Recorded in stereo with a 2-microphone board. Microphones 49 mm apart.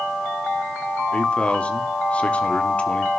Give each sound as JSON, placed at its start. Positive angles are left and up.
{"t": 1.1, "sound": "a man speaking", "side_deg": 25, "distance_m": 0.9}